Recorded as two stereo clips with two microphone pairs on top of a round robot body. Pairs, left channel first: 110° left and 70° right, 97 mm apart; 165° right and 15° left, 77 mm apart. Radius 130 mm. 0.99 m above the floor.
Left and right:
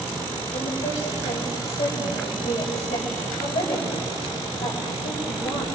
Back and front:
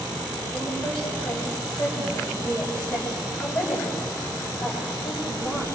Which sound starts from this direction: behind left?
A woman speaking, at 0.5 s.